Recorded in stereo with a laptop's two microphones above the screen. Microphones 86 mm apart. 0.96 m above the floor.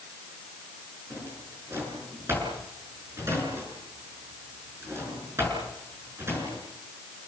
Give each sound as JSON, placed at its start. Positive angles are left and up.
{"t": 1.1, "sound": "a drawer", "side_deg": -30, "distance_m": 6.5}